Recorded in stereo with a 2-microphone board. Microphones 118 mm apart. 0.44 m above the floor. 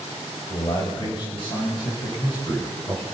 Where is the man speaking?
45° left (ahead or behind), 2 m.